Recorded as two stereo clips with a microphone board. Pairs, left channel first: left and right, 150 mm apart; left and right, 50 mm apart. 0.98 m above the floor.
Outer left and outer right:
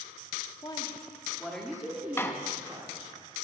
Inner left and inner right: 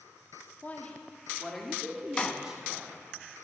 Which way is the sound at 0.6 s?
30° left (ahead or behind).